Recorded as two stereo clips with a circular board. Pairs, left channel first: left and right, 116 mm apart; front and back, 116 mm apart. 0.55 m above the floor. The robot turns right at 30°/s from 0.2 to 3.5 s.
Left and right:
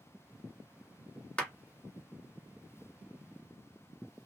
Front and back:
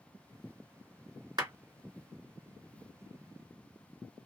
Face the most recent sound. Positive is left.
turn(degrees=-140)